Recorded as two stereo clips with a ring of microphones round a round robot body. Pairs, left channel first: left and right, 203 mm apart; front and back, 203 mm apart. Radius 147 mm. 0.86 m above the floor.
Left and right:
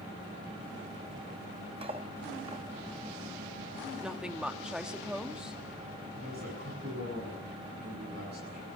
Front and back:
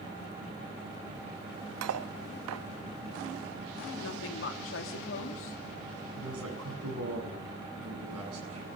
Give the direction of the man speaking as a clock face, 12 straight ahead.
5 o'clock.